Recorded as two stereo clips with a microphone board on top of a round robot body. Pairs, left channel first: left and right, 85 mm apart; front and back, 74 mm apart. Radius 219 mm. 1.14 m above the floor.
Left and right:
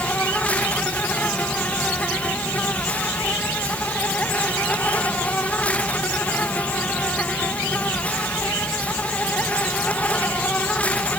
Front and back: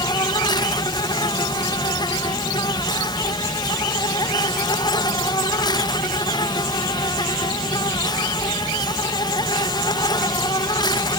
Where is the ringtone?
I don't hear a ringtone.